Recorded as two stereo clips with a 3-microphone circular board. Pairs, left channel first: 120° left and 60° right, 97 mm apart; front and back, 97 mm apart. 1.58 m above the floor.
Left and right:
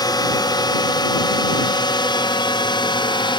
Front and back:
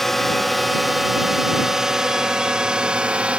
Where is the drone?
90° left; by 3.4 s 105° left.